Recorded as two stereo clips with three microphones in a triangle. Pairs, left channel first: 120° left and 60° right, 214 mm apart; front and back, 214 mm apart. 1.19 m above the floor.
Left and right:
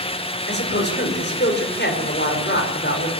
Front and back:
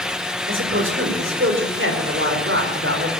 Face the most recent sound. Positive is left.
turn(degrees=160)